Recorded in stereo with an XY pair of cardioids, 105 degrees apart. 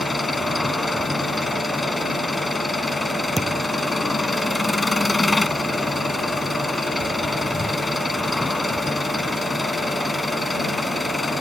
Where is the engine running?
20° left.